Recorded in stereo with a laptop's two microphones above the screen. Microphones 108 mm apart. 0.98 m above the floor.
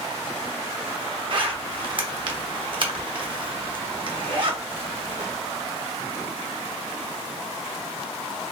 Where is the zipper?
45° right (ahead or behind), 0.7 m.